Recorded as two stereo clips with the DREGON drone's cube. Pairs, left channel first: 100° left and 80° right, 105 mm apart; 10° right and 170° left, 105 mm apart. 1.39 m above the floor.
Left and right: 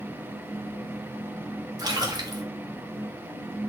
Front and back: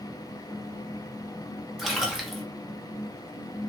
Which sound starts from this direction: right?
A splash, at 1.8 s.